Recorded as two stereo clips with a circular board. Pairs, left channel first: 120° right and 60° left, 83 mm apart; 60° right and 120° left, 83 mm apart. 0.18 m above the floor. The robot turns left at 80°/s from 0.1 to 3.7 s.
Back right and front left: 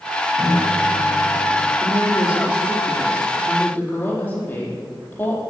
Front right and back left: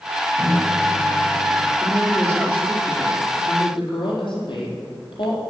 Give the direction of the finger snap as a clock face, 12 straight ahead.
No finger snap in this recording.